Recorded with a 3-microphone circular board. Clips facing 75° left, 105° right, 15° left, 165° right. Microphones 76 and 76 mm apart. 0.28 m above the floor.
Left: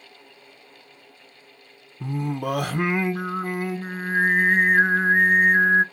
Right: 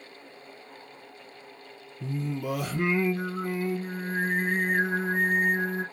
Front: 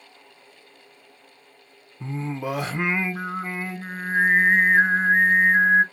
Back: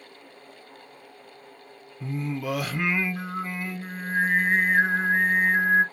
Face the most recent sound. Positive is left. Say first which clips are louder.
# left 5 dB, front 1 dB
turn(degrees=75)